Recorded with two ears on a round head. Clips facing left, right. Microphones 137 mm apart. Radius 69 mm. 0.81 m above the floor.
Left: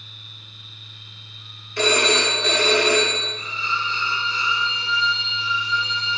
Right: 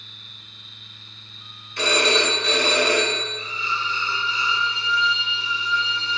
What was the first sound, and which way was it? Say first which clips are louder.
A phone ringing: left 1 dB; 60° left (ahead or behind).